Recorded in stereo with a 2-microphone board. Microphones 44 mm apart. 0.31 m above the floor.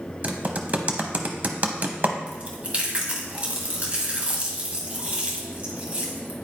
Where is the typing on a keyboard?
40° right (ahead or behind), 0.7 m.